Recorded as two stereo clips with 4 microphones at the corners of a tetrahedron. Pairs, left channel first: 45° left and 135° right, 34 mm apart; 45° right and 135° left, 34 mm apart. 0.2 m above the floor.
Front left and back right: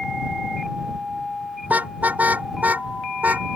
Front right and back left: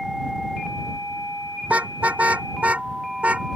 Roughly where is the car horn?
Behind.